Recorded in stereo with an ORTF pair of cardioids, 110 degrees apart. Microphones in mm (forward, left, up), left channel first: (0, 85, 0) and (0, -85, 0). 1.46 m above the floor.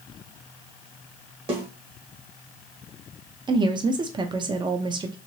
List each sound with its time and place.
1.5 s a snare drum: 35° right, 1.9 m
3.5 s a woman speaking: 30° right, 0.7 m